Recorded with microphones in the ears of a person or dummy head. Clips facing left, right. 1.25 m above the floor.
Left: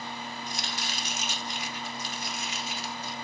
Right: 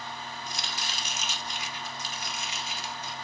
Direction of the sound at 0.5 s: 70° right (ahead or behind).